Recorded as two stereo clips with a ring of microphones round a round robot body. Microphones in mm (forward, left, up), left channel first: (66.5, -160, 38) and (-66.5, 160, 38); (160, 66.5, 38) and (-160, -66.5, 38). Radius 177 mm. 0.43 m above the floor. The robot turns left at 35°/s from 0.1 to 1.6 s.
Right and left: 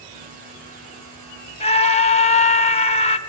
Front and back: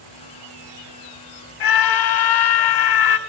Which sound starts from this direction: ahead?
A scream, at 1.6 s.